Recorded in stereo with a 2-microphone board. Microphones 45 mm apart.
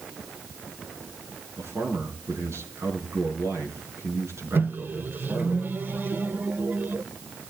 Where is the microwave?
45° right (ahead or behind), 1.0 m.